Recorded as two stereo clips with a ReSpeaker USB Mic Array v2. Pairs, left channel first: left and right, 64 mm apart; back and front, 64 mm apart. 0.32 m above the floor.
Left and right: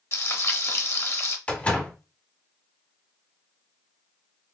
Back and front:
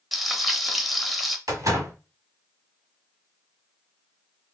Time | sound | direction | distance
0.1 | frying | 90° left | 0.6 m
1.5 | a door slam | 25° left | 1.2 m